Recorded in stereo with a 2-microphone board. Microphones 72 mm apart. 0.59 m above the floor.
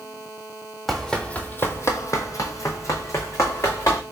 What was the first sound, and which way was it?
Running footsteps, 5° left (ahead or behind).